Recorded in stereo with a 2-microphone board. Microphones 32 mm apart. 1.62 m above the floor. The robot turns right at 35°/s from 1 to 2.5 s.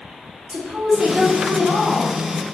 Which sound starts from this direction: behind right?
A woman speaking, at 0.5 s.